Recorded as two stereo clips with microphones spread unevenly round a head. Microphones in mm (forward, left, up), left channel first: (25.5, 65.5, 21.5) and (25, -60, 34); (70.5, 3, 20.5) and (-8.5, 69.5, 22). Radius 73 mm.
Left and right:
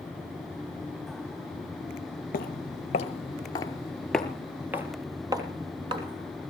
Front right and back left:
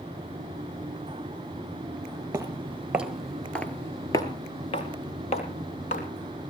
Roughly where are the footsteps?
Left.